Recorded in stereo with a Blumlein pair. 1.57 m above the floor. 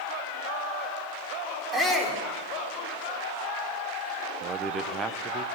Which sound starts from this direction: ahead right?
A man speaking, at 4.4 s.